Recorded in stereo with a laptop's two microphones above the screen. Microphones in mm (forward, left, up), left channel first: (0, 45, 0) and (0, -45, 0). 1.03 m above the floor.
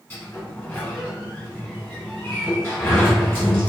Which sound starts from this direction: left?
A sliding door, at 0.1 s.